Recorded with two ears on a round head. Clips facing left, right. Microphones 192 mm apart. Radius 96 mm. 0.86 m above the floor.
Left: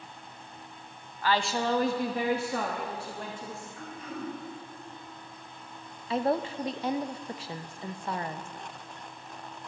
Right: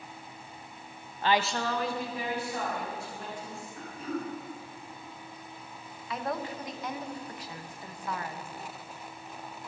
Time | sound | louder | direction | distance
1.2 | a woman speaking | even | 25° right (ahead or behind) | 0.6 m
3.8 | throat clearing | right 5 dB | 25° right (ahead or behind) | 4.5 m
6.1 | a woman speaking | left 7 dB | 25° left (ahead or behind) | 0.5 m